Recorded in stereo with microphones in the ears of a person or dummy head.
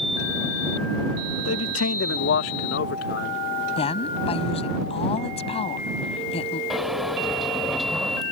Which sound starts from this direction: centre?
A sliding door, at 6.7 s.